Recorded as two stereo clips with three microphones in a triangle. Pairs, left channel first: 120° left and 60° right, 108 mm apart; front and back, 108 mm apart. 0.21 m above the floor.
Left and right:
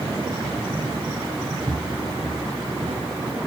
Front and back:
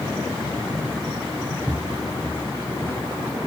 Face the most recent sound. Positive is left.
turn(degrees=-65)